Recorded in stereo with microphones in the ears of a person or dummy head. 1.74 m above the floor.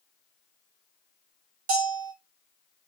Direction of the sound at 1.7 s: 50° right (ahead or behind).